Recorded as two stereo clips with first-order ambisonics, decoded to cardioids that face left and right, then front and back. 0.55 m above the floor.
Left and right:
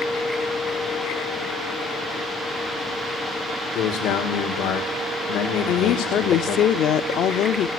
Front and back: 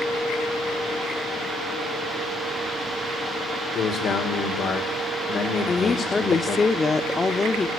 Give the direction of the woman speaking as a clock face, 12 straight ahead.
10 o'clock.